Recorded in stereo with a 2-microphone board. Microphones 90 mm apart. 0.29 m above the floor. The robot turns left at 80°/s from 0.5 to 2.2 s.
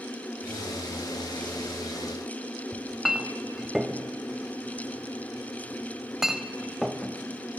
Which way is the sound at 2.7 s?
5° right (ahead or behind).